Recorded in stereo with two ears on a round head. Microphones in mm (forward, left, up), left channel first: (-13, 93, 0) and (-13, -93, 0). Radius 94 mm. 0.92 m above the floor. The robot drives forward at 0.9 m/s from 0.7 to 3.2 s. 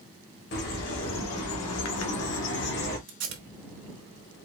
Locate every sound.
0.5 s a bird: 50° left (ahead or behind), 1.6 m
3.1 s tape being pulled: 60° right (ahead or behind), 1.3 m